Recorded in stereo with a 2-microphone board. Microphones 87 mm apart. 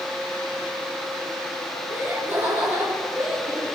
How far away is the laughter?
About 8 m.